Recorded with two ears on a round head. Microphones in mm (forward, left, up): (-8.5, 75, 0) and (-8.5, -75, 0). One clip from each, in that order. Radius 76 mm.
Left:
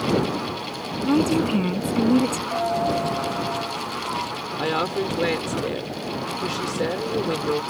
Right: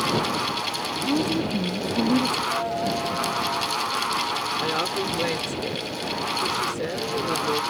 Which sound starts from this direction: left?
A woman speaking, at 1.1 s.